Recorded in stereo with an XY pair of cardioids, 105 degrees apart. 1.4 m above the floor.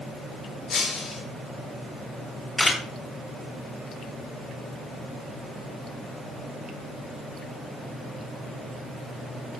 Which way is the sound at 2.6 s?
25° left.